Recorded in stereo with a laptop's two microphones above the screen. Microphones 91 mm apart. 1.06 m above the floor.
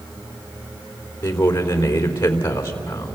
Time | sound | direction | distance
1.2 | a man speaking | 55° left (ahead or behind) | 3.5 m